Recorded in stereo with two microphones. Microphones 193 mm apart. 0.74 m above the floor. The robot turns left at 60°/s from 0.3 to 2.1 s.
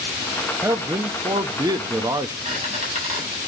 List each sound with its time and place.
0.6 s a man speaking: 15° right (ahead or behind), 0.6 m
2.5 s a squeak: 35° right (ahead or behind), 6.5 m